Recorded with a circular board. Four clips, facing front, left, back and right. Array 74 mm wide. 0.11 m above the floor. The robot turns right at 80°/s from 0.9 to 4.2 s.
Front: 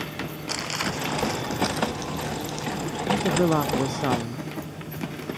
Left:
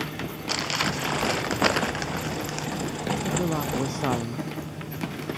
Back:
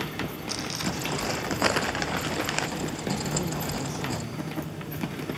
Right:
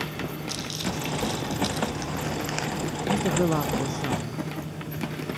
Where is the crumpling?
60° left; by 2.7 s 155° right.